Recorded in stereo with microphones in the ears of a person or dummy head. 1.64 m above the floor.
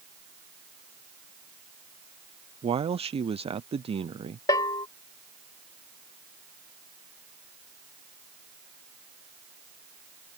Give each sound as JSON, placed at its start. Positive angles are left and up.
{"t": 2.6, "sound": "a man speaking", "side_deg": -30}
{"t": 4.5, "sound": "a bell", "side_deg": 20}